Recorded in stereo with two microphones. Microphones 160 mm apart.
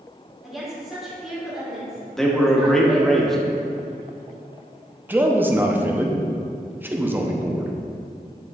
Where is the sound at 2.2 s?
Centre (ahead or behind), 1.0 m.